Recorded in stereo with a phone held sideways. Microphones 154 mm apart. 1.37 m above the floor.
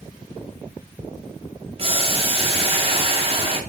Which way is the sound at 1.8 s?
40° right (ahead or behind).